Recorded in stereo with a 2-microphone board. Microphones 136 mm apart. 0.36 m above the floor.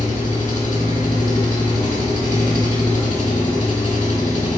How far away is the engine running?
About 0.8 m.